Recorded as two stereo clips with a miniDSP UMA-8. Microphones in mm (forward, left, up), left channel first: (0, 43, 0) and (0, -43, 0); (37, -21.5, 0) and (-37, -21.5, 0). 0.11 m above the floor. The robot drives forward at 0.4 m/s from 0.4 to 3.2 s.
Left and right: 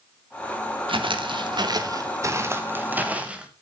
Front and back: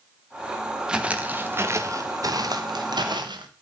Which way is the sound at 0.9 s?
100° right.